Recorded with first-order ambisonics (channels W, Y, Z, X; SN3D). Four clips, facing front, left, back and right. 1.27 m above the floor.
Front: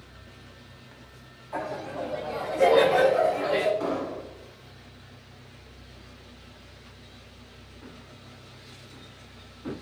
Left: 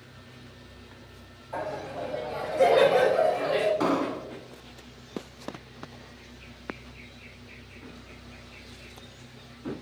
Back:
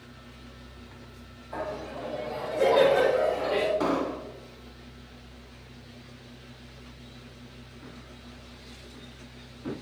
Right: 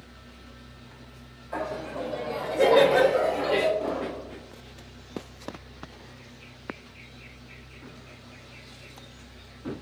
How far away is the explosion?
About 1.2 m.